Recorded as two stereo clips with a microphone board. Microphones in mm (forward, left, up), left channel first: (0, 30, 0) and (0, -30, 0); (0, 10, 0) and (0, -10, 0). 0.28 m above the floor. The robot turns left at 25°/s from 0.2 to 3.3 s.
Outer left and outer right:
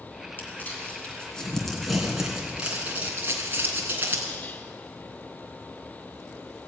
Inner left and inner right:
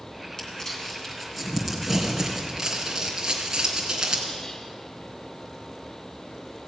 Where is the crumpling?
35° left (ahead or behind), 3 m; by 4.3 s 30° right (ahead or behind), 3 m.